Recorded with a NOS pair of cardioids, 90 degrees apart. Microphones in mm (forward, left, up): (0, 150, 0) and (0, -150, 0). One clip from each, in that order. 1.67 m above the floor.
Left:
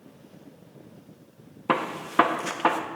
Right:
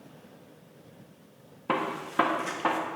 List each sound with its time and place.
1.7 s a gunshot: 30° left, 1.3 m